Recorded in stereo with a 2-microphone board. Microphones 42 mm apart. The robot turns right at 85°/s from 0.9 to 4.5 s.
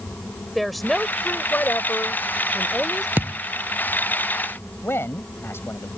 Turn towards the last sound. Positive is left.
turn(degrees=65)  # may be behind; listen again after turning